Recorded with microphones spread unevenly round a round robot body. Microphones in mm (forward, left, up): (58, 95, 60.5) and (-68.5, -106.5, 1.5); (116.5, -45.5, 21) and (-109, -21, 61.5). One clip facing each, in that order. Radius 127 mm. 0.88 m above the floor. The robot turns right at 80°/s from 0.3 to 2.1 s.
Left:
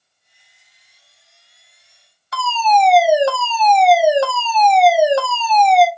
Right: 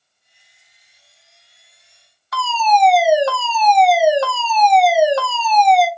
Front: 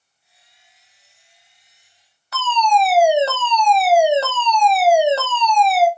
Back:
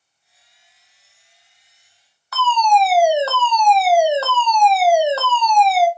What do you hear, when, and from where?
2.3 s a fire alarm: 10° right, 1.7 m